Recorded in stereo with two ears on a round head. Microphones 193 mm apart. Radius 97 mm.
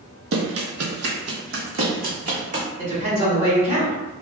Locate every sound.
0.3 s running footsteps: 50° right (ahead or behind), 0.7 m; by 2.6 s 35° right (ahead or behind), 1.3 m
2.8 s a woman speaking: 30° right (ahead or behind), 1.2 m